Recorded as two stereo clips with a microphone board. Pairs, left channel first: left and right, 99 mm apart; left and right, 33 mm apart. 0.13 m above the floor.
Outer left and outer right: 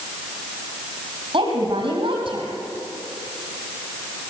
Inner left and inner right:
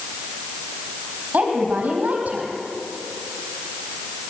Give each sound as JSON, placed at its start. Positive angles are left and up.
{"t": 1.3, "sound": "a woman speaking", "side_deg": -55, "distance_m": 4.5}